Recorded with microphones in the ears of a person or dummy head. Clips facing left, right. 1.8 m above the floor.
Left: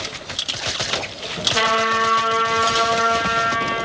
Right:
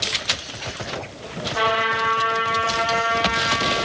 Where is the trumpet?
40° left (ahead or behind), 3.5 m.